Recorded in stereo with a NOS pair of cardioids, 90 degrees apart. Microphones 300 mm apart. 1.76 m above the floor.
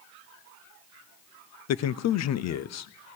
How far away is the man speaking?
About 0.7 m.